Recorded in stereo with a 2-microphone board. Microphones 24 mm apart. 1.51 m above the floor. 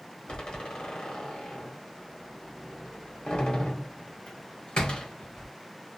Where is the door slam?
40° left (ahead or behind), 1.2 m.